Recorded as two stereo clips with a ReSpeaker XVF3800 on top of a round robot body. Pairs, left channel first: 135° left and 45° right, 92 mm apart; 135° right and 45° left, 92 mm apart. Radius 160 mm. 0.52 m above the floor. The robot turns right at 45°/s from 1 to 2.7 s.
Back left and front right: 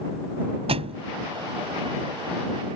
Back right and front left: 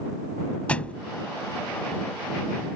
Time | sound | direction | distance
0.7 | a thud | 55° right | ?